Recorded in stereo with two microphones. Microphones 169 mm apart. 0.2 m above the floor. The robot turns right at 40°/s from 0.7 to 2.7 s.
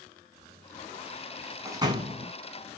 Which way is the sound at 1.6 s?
20° right (ahead or behind).